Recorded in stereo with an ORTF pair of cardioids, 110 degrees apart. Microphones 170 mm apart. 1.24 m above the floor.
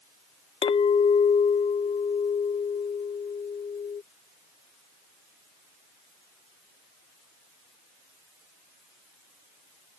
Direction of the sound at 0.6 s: 30° left.